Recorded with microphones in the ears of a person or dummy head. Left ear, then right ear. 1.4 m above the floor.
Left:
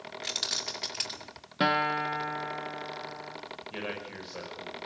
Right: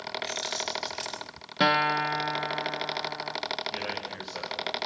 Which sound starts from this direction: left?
Keys jangling, at 0.2 s.